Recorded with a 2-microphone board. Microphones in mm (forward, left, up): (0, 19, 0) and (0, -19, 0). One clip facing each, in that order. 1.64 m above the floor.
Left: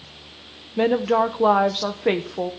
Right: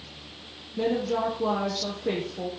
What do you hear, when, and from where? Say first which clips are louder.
0.8 s a woman speaking: left 7 dB; 70° left (ahead or behind), 1.1 m